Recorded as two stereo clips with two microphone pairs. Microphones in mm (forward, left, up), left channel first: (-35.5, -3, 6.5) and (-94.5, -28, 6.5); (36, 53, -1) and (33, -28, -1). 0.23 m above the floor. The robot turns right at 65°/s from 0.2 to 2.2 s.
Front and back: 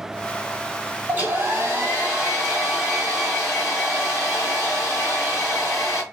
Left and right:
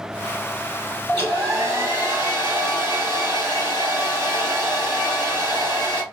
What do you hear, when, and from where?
1.1 s a hair dryer: 150° right, 1.6 m; by 6.0 s 80° right, 1.6 m